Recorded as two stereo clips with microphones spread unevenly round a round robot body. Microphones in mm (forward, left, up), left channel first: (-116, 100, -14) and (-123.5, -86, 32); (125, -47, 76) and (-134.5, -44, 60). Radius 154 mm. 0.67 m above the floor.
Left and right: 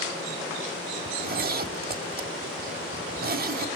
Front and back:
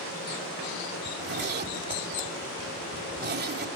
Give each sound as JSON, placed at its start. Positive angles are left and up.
{"t": 1.1, "sound": "a zipper", "azimuth_deg": -130, "distance_m": 1.6}